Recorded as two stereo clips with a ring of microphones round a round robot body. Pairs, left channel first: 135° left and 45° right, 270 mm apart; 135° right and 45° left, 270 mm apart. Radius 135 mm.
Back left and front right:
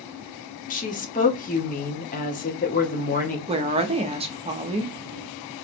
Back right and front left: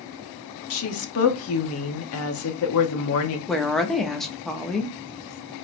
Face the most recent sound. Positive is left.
turn(degrees=-50)